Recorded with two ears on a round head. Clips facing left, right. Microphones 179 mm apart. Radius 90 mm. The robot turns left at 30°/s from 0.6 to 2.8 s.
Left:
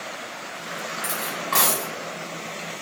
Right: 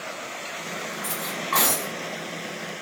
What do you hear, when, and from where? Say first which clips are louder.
1.0 s cutlery clinking: left 1 dB; 35° left (ahead or behind), 1.2 m; by 1.9 s 65° left (ahead or behind), 1.2 m